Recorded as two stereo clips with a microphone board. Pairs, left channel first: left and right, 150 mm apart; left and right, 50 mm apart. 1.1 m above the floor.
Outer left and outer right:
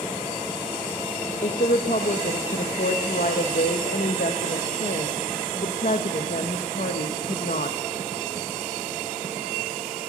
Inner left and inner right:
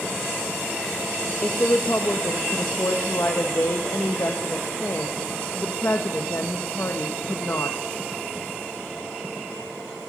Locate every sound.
1.4 s a woman speaking: 70° left (ahead or behind), 0.8 m